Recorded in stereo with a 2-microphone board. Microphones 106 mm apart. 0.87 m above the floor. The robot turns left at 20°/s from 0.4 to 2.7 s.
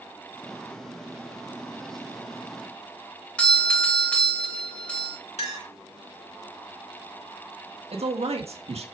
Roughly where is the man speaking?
Right.